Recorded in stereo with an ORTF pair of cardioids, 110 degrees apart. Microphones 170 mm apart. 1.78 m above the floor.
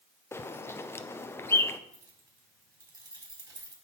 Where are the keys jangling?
25° right, 4.5 m.